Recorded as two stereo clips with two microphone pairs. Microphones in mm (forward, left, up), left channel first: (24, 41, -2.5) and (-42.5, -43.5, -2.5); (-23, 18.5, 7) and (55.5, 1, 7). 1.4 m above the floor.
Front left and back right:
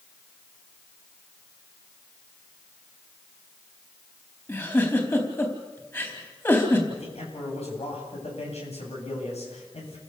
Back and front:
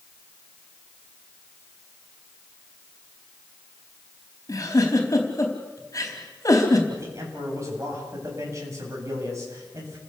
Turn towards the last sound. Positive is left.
turn(degrees=40)